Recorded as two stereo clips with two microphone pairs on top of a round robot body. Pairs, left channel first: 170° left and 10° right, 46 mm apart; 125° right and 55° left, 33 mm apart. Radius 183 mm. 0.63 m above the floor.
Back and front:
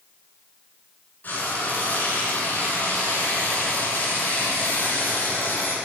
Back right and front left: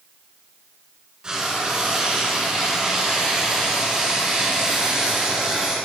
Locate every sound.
1.2 s frying: 115° left, 2 m